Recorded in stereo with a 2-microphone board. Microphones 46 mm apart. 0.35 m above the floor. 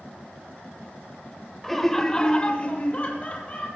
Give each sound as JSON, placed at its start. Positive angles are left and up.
{"t": 1.6, "sound": "laughter", "side_deg": 5, "distance_m": 1.0}